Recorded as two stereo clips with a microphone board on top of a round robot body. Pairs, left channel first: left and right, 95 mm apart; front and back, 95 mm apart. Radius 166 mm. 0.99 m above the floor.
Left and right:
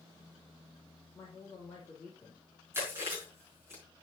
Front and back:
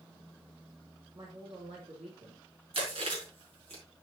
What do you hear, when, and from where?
1.1 s a woman speaking: 160° left, 4 m
2.7 s chewing: 155° right, 5 m